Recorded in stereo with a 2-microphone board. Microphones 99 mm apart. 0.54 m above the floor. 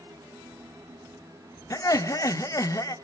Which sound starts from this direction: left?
Laughter, at 1.7 s.